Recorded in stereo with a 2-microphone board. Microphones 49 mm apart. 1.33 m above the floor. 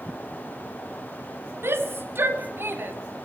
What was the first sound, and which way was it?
A shout, 55° right (ahead or behind).